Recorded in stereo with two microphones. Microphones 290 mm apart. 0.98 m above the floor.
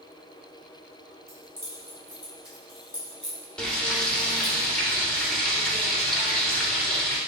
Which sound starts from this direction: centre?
Frying, at 3.6 s.